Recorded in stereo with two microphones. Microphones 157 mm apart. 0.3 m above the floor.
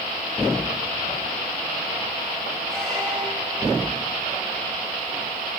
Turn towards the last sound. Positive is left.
turn(degrees=5)  # may be behind; listen again after turning